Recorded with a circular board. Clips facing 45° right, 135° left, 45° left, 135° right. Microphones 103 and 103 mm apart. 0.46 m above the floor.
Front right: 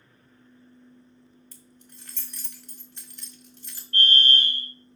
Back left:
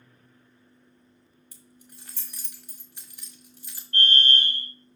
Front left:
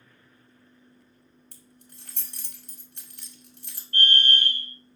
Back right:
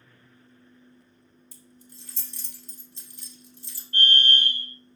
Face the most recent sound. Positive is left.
turn(degrees=175)